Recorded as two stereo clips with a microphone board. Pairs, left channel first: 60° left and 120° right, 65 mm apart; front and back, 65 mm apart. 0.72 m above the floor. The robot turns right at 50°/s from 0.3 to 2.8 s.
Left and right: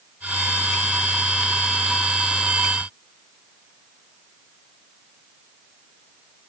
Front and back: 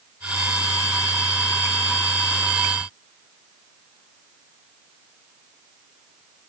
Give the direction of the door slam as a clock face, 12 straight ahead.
No door slam in this recording.